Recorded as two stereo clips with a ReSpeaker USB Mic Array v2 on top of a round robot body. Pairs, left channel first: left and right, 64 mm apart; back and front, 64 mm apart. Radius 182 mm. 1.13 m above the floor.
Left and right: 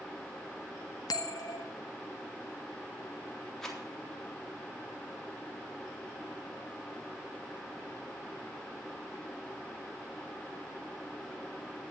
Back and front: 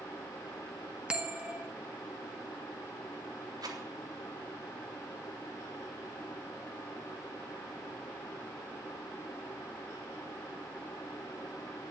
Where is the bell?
75° left, 2 m.